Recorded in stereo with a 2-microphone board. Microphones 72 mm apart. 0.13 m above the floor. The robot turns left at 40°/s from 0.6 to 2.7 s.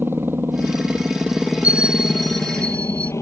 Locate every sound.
0.0 s a helicopter: 30° right (ahead or behind); by 3.2 s 40° left (ahead or behind)
1.6 s a bell: 160° right; by 3.1 s 160° left